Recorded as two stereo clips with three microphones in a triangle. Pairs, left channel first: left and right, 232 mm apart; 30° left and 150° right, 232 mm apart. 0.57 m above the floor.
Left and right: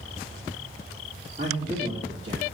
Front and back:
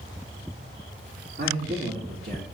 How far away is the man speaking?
About 1.6 m.